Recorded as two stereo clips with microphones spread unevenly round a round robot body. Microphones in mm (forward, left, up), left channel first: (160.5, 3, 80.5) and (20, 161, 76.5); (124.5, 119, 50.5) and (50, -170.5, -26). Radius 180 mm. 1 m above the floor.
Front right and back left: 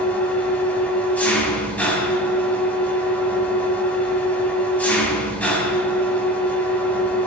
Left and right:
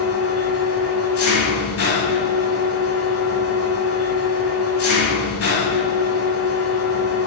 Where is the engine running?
35° left, 3.5 m.